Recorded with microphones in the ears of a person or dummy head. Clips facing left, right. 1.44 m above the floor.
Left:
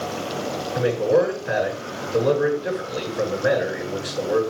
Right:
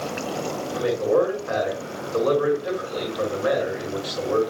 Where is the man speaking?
25° left (ahead or behind), 7 m.